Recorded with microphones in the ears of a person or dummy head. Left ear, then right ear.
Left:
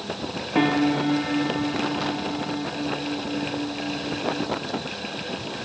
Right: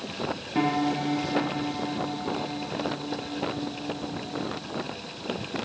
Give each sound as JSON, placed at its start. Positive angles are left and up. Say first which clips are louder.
{"t": 0.6, "sound": "a piano", "louder": "left 5 dB", "side_deg": 15, "distance_m": 1.8}